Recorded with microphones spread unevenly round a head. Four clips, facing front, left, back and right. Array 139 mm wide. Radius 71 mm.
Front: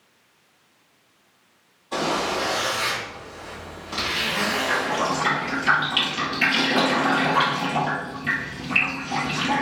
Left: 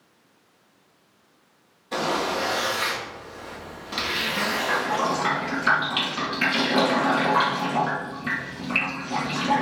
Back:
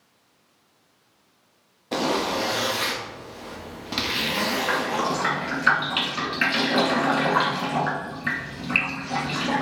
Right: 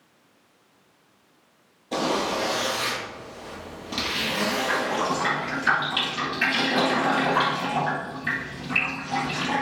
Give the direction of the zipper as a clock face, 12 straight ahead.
5 o'clock.